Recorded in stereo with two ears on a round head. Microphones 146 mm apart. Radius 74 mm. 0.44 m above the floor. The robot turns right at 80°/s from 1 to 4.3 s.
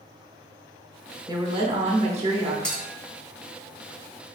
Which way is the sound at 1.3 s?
145° right.